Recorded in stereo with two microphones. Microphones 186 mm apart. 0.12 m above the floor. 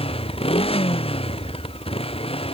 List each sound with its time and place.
0.0 s a motorcycle: 30° left (ahead or behind)